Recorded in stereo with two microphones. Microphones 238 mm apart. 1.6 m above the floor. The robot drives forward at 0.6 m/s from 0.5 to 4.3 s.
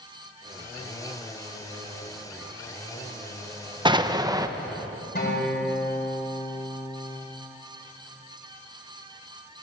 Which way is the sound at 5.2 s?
45° left (ahead or behind).